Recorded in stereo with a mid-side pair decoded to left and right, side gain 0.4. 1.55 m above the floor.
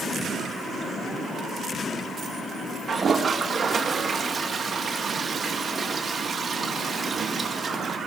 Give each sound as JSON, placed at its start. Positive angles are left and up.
{"t": 2.9, "sound": "a toilet flushing", "azimuth_deg": -45, "distance_m": 1.8}